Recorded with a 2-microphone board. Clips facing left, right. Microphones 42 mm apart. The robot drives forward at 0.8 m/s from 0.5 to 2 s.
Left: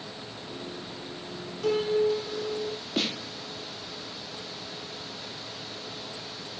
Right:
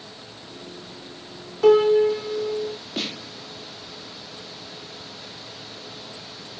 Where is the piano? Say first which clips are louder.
Right 9 dB; 85° right, 1.5 m; by 2.8 s 75° right (ahead or behind), 1.6 m.